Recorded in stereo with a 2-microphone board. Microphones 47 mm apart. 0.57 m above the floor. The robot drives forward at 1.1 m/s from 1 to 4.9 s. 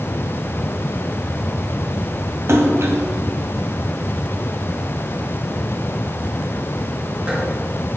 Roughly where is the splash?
Right.